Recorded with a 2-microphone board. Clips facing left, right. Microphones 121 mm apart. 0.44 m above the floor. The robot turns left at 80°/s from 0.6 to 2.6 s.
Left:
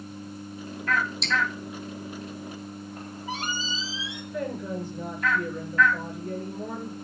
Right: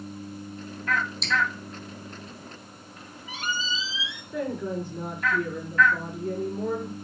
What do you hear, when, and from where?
1.2 s dripping: centre (ahead or behind), 3 m; by 1.4 s 10° right (ahead or behind), 3 m
3.0 s a squeak: 40° left (ahead or behind), 1.7 m
4.3 s a woman speaking: 70° right (ahead or behind), 7.5 m